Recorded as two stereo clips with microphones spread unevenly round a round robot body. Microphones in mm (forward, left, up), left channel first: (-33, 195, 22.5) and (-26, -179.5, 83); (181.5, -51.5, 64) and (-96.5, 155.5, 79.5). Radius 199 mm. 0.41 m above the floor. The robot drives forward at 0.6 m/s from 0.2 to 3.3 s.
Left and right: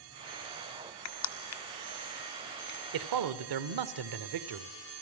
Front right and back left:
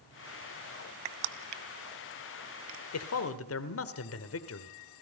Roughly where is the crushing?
Behind left.